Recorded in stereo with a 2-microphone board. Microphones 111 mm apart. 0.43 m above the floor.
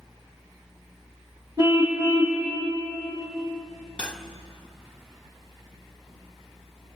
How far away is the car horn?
About 9 m.